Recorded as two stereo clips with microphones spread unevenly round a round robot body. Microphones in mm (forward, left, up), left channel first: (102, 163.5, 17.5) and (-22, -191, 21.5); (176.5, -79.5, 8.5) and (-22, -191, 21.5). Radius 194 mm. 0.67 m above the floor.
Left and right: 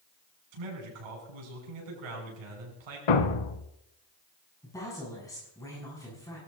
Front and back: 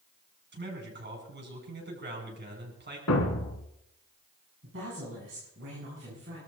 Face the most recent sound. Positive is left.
turn(degrees=150)